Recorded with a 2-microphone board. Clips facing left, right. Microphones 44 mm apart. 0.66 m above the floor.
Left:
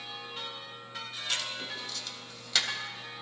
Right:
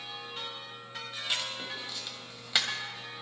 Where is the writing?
20° right (ahead or behind), 2 m.